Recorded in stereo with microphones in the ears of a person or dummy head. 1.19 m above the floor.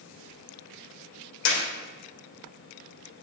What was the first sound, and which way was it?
A clap, 75° left (ahead or behind).